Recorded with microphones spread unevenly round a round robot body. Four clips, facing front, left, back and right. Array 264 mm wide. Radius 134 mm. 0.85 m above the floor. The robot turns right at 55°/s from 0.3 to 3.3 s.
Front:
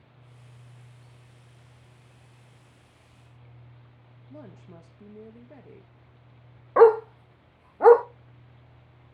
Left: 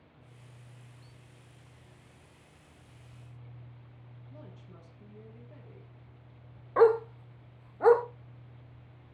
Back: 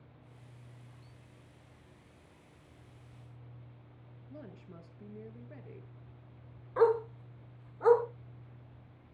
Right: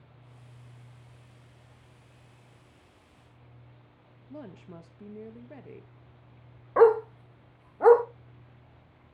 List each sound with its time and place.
4.3 s a woman speaking: 75° right, 1.1 m
6.8 s a dog barking: 15° right, 0.8 m